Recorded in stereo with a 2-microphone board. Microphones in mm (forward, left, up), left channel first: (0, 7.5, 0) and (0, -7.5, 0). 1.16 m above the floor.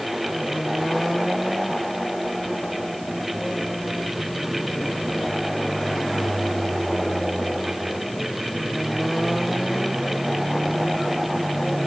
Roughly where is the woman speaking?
I don't hear a woman speaking.